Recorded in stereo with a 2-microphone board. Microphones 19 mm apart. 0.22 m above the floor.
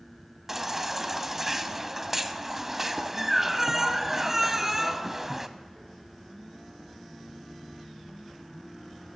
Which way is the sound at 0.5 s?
15° right (ahead or behind).